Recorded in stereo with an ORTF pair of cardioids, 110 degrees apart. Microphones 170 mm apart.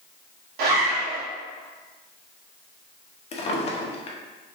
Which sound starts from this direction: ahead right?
A zipper, at 0.6 s.